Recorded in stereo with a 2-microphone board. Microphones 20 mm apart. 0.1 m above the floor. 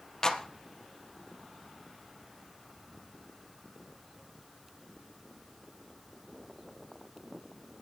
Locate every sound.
0.2 s a clap: 30° left (ahead or behind), 2 m